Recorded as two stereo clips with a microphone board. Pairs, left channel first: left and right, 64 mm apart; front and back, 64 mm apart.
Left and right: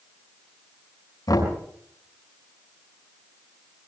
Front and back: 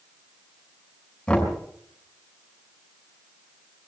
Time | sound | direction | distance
1.3 | knocking | 75° left | 5.5 m